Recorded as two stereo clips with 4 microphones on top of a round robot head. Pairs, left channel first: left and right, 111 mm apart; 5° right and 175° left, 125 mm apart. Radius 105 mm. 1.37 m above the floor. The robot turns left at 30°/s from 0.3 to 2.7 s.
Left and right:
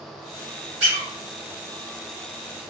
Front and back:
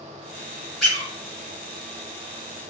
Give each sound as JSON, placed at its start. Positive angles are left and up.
{"t": 0.8, "sound": "a squeak", "azimuth_deg": -100, "distance_m": 1.3}